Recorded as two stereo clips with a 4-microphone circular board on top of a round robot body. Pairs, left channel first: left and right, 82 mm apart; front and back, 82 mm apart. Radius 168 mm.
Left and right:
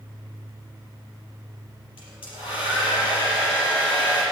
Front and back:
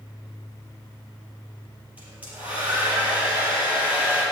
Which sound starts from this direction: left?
A hair dryer, at 2.0 s.